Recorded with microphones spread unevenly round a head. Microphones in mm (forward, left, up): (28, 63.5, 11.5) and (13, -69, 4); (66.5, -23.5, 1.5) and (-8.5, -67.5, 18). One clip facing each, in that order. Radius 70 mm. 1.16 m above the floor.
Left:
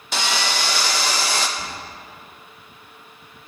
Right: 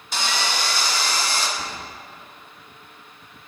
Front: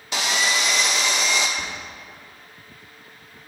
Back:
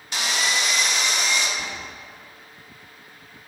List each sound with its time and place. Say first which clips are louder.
0.1 s sawing: left 2 dB, front 2 dB; 55° left, 0.7 m
1.6 s whispering: right 1 dB, front 1 dB; 5° left, 2.5 m